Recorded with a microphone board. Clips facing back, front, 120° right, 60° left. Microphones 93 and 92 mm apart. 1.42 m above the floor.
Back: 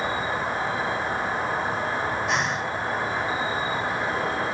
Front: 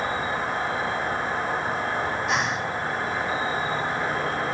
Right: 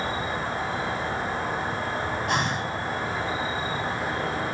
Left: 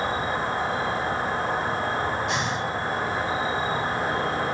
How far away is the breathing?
About 0.7 m.